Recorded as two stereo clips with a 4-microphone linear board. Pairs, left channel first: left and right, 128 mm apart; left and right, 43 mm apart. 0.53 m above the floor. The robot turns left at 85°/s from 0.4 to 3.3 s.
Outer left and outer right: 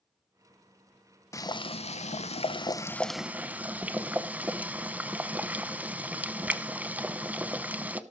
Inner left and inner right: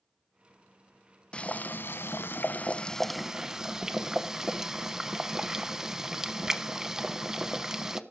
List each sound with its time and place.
1.3 s boiling: 155° left, 0.6 m; by 8.0 s 15° right, 0.6 m